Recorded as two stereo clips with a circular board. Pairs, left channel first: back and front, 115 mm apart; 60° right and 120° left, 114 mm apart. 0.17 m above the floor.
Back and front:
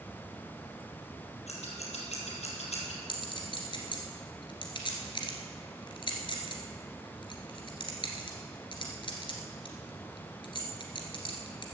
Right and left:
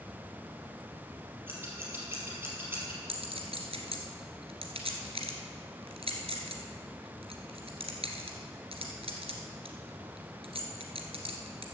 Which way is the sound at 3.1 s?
140° left.